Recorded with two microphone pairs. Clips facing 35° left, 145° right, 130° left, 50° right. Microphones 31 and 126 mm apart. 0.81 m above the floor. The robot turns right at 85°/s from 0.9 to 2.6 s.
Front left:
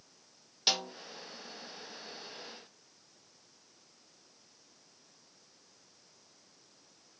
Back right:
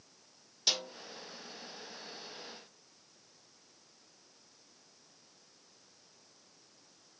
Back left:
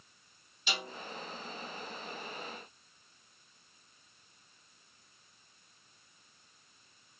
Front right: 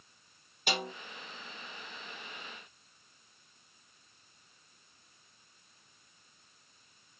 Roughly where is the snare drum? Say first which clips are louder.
Front left 2 dB, front right 5 dB; ahead.